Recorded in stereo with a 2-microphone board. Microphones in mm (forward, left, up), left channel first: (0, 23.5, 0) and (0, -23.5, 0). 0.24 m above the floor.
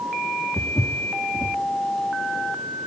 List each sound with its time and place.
0.6 s footsteps: 60° left (ahead or behind), 2.0 m